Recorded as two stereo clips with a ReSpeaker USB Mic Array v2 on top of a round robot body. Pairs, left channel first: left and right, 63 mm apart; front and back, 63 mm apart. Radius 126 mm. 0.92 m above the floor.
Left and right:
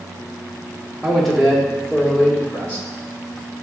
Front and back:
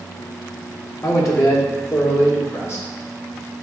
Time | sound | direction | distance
1.0 | a man speaking | 5° right | 0.9 m